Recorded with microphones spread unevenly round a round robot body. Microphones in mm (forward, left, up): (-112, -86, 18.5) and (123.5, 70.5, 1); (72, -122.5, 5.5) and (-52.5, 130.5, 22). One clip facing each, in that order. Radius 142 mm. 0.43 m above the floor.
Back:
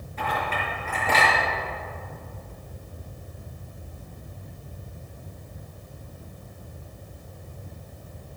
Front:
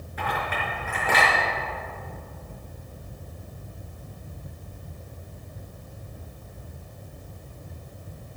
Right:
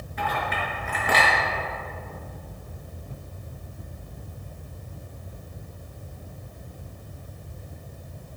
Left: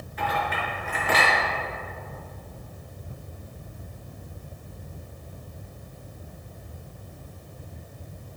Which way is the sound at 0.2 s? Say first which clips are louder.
Back 1 dB, even; 45° right.